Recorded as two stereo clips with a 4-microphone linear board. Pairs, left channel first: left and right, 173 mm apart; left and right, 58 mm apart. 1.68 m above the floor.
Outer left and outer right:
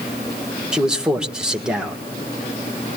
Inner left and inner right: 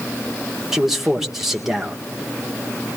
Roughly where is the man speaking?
Centre.